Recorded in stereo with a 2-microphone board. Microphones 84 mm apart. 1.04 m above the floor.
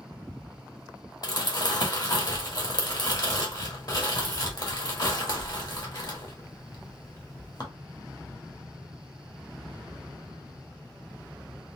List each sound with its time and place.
1.2 s crumpling: 55° left (ahead or behind), 1.2 m